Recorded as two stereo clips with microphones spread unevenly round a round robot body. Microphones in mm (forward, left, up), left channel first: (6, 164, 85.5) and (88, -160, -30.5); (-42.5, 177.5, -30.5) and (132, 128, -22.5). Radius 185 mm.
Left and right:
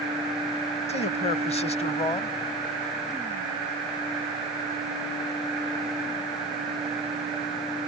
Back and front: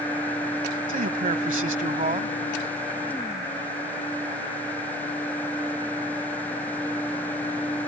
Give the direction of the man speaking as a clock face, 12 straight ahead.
11 o'clock.